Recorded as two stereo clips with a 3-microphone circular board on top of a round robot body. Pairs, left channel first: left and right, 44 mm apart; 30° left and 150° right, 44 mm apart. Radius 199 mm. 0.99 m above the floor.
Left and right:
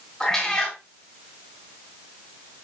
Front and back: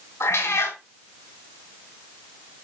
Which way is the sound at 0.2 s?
15° left.